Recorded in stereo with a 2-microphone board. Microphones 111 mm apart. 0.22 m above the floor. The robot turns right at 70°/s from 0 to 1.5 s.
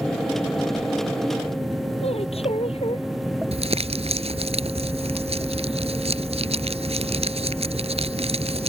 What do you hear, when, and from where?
2.0 s a woman speaking: 70° left (ahead or behind)
3.5 s crumpling: 70° right (ahead or behind)